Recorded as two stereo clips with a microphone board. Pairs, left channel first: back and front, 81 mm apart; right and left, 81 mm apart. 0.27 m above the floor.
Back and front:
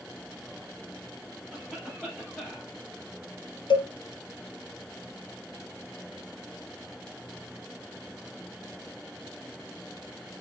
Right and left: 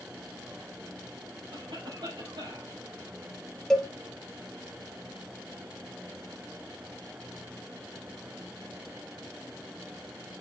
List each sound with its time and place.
1.5 s a cough: 95° left, 5.5 m
3.7 s a cowbell: 170° right, 0.9 m